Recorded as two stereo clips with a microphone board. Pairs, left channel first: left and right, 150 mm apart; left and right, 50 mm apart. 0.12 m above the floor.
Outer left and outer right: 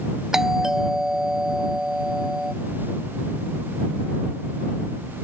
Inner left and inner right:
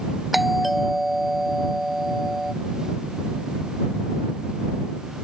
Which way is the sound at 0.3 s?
5° right (ahead or behind).